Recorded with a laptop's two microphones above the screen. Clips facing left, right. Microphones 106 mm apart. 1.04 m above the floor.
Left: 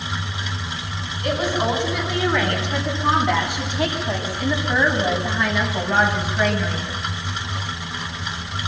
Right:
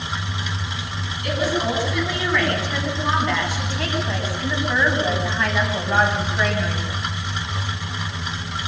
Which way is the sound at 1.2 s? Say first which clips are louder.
Left 1 dB; 25° left (ahead or behind).